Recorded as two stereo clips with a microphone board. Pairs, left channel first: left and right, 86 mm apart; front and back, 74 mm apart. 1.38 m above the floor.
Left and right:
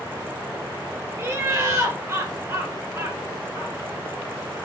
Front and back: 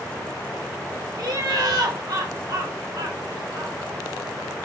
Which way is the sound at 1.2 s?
150° right.